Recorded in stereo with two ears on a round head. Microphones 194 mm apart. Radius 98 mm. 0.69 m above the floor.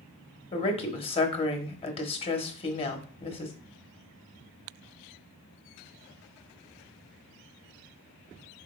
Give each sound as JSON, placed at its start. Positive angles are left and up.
{"t": 0.5, "sound": "a woman speaking", "side_deg": 25, "distance_m": 1.0}